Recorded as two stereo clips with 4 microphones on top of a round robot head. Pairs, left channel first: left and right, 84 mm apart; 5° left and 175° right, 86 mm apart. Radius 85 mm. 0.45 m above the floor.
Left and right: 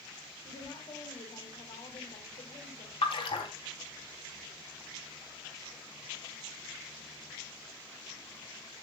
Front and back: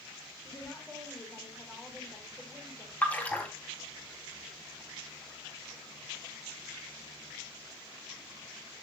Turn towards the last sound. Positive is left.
turn(degrees=80)